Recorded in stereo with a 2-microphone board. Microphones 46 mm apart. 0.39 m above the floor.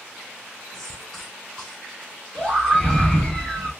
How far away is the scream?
About 3 m.